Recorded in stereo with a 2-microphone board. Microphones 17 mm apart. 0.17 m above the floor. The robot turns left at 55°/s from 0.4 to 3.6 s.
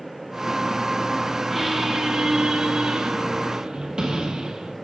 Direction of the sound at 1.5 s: 10° right.